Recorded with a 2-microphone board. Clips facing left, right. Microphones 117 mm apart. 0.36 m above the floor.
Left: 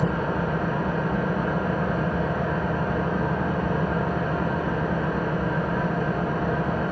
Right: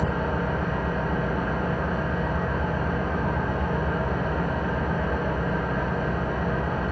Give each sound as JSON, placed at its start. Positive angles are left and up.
{"t": 0.0, "sound": "an engine running", "side_deg": 90, "distance_m": 3.5}